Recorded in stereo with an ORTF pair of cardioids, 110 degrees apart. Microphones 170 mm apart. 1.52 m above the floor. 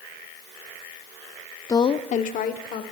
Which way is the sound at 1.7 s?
20° left.